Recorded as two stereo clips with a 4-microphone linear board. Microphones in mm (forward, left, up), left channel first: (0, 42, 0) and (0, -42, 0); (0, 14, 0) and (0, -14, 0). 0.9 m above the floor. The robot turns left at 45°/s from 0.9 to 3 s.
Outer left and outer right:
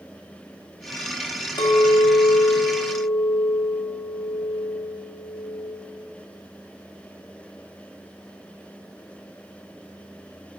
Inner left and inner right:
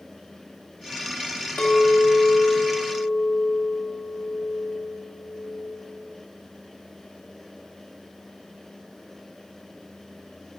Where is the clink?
80° left, 1.0 m; by 5.7 s 15° left, 1.0 m.